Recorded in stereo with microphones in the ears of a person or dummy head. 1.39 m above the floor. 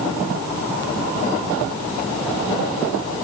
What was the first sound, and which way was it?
Only background noise.